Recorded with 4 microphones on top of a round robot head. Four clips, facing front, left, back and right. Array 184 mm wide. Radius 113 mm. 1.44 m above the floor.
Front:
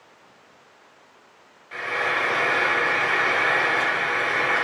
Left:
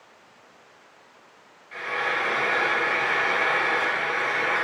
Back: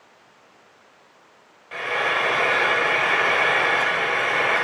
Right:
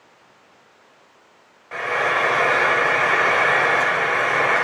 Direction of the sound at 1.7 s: 110° right.